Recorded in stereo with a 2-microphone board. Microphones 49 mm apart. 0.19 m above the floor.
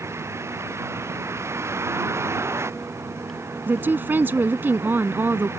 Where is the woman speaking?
45° right (ahead or behind).